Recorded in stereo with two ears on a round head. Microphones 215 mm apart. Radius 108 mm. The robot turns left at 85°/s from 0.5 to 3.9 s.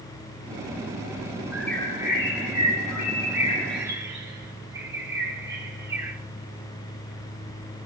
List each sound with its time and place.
1.5 s a bird: 170° right, 5.5 m; by 6.2 s 15° right, 5.5 m